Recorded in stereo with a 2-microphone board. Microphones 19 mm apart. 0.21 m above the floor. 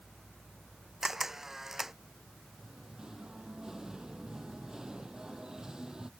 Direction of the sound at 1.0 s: 20° right (ahead or behind).